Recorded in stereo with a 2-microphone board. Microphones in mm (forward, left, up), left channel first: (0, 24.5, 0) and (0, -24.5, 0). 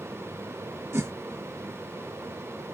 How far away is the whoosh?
About 1.1 m.